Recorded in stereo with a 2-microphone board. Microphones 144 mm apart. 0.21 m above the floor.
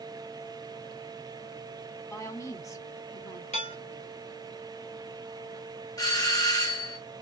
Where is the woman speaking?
20° left (ahead or behind), 1.4 m.